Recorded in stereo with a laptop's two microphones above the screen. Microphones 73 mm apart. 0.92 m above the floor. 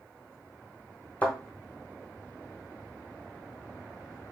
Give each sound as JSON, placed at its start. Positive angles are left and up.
{"t": 1.2, "sound": "a thud", "side_deg": 20, "distance_m": 1.4}